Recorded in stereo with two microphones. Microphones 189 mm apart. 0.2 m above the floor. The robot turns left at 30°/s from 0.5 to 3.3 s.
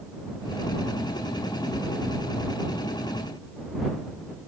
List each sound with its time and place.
Only background noise.